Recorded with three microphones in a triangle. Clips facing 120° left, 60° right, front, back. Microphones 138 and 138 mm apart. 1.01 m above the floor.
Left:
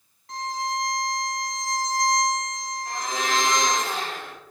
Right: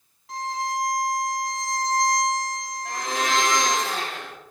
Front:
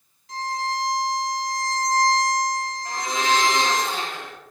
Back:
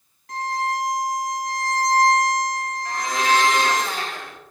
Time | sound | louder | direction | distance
0.3 | a violin | right 1 dB, back 3 dB | 145° right | 0.6 m
2.9 | a blender | right 2 dB, back 2 dB | 70° right | 1.0 m